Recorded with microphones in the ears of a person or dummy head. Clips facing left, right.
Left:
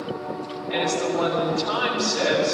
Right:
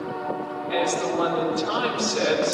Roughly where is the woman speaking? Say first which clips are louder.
Left 1 dB; right.